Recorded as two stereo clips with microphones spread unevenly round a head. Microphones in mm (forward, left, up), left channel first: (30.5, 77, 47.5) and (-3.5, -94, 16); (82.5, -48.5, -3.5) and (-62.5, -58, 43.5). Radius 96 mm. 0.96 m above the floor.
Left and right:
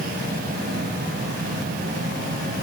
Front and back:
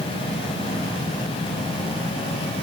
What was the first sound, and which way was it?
Only background noise.